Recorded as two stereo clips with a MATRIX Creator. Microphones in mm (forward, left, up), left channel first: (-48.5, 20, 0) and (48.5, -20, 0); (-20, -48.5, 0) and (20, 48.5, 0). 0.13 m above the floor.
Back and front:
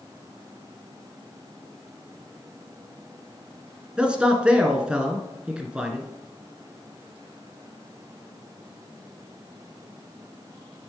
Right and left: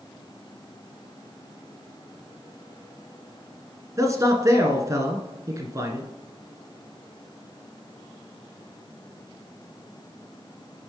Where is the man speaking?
50° left, 1.5 m.